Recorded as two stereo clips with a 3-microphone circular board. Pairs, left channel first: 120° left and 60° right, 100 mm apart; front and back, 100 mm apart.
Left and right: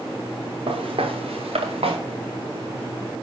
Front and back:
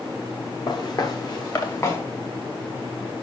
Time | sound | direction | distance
0.7 | footsteps | 40° right | 1.4 m